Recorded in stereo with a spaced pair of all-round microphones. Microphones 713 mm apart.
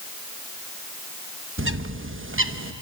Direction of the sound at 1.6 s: 20° right (ahead or behind).